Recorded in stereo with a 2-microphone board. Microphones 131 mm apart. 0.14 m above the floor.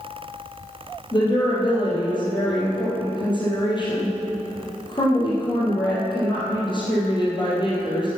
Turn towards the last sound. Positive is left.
turn(degrees=35)  # may be behind; listen again after turning